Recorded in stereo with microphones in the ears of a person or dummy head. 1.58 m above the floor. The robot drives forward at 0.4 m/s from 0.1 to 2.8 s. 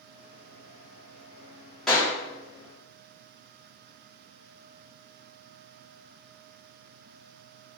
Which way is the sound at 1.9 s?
Centre (ahead or behind).